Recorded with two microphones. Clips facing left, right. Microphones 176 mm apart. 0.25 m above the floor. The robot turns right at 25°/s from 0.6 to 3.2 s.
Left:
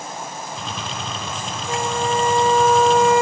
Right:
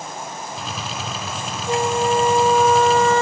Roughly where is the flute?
Ahead right.